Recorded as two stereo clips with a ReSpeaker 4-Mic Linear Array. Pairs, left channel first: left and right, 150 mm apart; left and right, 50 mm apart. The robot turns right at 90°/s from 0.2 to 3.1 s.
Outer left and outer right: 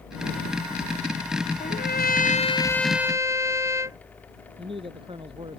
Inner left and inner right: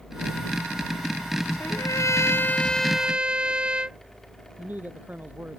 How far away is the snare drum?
I don't hear a snare drum.